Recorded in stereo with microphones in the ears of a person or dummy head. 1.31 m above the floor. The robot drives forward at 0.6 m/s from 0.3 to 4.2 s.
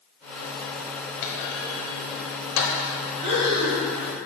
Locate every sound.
1.2 s a clunk: 65° left (ahead or behind), 1.3 m; by 2.8 s 70° left (ahead or behind), 1.2 m
3.2 s breathing: 40° right (ahead or behind), 1.5 m; by 3.8 s 35° right (ahead or behind), 1.8 m